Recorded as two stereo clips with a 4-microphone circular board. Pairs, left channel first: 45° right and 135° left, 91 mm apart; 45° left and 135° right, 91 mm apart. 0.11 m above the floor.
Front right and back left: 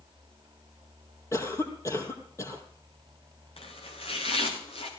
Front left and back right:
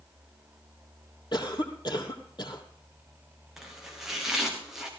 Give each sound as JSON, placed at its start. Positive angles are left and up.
{"t": 1.3, "sound": "a cough", "azimuth_deg": 10, "distance_m": 3.5}
{"t": 3.6, "sound": "chopping", "azimuth_deg": -50, "distance_m": 3.5}